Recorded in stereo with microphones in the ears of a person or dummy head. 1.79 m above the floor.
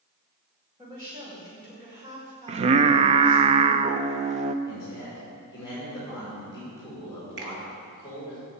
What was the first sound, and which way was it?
A woman speaking, 20° right (ahead or behind).